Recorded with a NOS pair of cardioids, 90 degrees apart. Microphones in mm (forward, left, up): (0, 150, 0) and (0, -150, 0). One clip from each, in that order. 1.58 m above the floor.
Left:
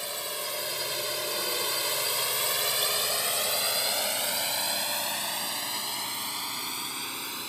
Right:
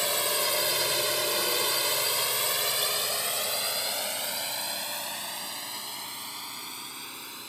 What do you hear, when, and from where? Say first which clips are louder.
0.0 s a drone: right 7 dB; 50° right; by 7.5 s 45° left